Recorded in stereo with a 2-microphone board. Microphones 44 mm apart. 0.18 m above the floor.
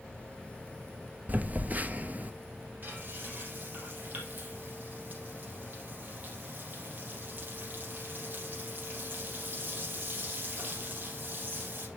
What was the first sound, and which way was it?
A phone buzzing, 40° right (ahead or behind).